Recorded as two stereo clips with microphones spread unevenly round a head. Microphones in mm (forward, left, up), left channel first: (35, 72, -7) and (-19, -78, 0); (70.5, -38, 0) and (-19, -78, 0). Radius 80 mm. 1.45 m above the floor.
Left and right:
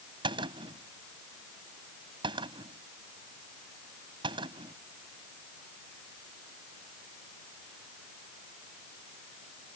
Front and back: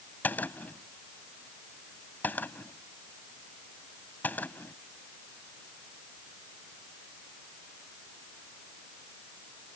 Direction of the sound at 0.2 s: 50° right.